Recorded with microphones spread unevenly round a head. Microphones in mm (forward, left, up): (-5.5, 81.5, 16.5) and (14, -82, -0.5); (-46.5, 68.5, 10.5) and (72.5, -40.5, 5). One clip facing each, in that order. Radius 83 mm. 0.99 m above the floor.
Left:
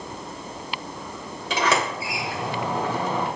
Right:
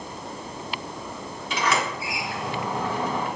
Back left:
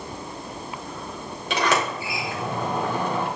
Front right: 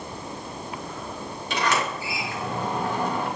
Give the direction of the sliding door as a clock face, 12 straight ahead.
8 o'clock.